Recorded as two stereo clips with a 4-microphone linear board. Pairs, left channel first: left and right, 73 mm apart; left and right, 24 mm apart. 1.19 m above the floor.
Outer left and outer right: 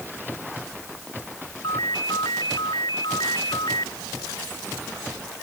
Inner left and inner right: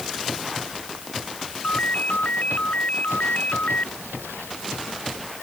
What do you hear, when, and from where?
1.6 s a ringtone: 80° left